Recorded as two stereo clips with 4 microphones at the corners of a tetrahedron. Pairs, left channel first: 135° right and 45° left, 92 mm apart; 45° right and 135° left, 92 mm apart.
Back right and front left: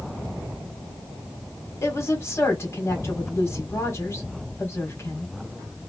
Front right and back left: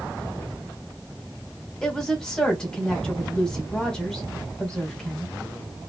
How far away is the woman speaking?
About 1.3 m.